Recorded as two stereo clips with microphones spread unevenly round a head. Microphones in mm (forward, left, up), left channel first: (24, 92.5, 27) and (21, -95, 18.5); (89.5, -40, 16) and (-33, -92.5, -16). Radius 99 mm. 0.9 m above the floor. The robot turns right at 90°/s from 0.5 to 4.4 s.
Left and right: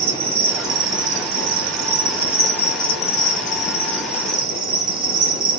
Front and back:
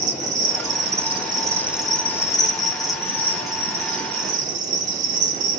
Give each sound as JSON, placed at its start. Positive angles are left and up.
{"t": 0.0, "sound": "an insect", "azimuth_deg": -170, "distance_m": 0.7}